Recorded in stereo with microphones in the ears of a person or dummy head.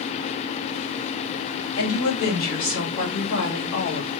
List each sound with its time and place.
1.8 s a woman speaking: 85° left, 2.5 m; by 4.1 s 65° left (ahead or behind), 2.5 m